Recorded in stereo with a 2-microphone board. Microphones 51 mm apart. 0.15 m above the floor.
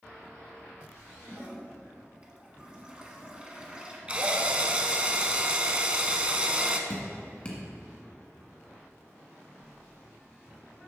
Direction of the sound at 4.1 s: 25° right (ahead or behind).